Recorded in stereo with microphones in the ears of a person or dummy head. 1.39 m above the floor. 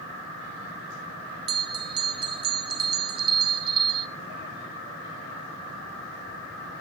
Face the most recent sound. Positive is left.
turn(degrees=-25)  # may be behind; listen again after turning